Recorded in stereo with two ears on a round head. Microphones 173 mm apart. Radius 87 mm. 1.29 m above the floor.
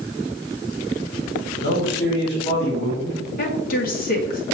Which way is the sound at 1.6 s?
55° left (ahead or behind).